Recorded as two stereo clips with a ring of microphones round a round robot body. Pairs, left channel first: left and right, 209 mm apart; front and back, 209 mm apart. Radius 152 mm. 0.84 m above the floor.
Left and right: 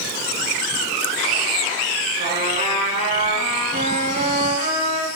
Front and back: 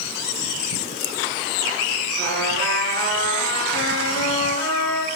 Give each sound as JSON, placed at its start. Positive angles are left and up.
{"t": 2.2, "sound": "a trumpet", "azimuth_deg": -30, "distance_m": 5.0}